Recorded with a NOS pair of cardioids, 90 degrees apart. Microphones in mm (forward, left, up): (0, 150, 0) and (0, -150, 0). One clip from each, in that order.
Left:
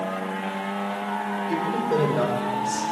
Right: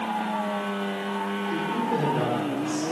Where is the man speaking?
50° left, 5 m; by 2.8 s 65° left, 6 m.